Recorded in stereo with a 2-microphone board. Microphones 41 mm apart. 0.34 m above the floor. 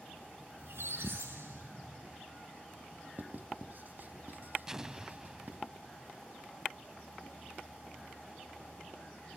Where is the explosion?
15° right (ahead or behind), 0.6 m.